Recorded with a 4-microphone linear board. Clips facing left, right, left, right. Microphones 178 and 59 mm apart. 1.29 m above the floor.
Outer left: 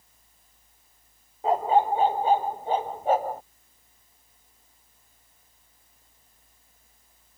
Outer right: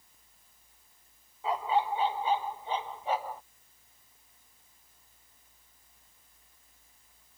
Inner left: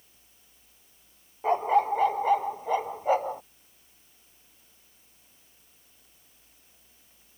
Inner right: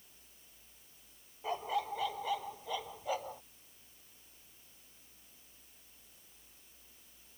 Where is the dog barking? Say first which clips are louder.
Outer left 7 dB, inner left 13 dB; 50° left (ahead or behind).